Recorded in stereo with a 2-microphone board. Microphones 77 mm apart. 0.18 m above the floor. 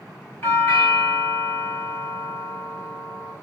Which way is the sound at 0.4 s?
30° left (ahead or behind).